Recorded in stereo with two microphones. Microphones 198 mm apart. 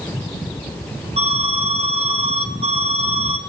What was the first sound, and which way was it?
An alarm, 35° right (ahead or behind).